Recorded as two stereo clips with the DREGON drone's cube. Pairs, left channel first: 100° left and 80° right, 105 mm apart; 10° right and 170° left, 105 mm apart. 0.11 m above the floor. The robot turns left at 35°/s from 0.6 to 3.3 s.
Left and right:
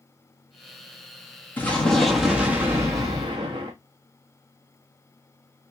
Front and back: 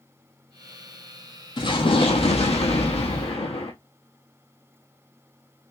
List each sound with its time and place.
1.6 s an explosion: 30° left, 1.4 m; by 3.7 s 30° right, 1.4 m